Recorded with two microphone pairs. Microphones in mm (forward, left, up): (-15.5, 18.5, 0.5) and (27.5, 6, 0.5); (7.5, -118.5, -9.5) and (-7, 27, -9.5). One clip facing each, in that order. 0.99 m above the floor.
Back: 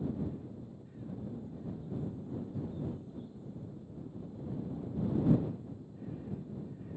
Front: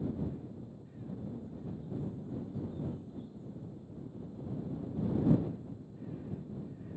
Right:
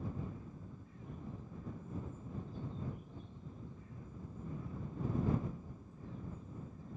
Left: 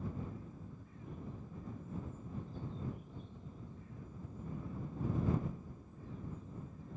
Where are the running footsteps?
No running footsteps in this recording.